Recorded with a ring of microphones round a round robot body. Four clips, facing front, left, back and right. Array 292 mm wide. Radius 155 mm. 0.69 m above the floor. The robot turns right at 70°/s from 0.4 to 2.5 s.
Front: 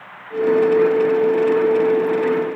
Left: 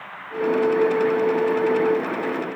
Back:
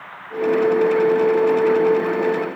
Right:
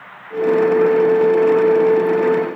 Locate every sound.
Only background noise.